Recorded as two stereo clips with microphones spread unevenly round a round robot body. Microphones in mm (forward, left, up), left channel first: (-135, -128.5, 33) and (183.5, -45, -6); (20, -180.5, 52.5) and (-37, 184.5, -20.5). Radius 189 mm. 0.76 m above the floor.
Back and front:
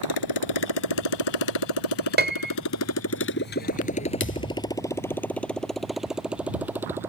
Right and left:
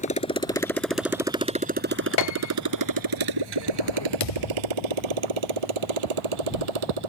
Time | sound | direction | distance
0.0 | a motorcycle | 150° right | ?
2.2 | a piano | 45° right | ?
4.2 | a thud | 110° right | ?